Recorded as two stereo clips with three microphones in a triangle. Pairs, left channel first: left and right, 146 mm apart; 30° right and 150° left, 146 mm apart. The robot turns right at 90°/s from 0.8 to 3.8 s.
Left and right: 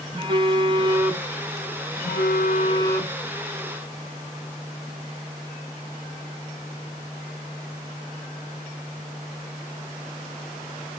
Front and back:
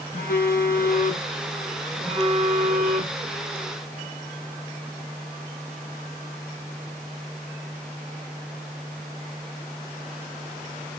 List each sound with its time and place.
0.1 s a phone buzzing: 35° right, 1.1 m; by 3.2 s 175° right, 1.1 m